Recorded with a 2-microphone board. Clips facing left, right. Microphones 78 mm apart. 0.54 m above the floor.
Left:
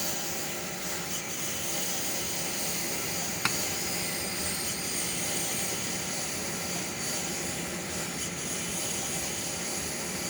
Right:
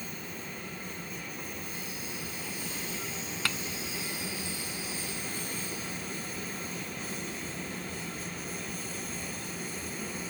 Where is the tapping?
20° left (ahead or behind).